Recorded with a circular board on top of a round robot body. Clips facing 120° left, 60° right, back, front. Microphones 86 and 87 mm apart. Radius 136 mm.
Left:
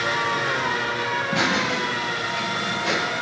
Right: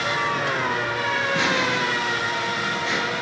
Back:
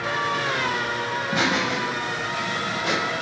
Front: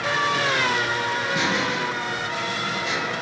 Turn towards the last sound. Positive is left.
turn(degrees=145)